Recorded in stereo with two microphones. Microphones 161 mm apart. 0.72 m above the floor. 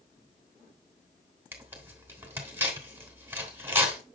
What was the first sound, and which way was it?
Tearing paper, 15° right (ahead or behind).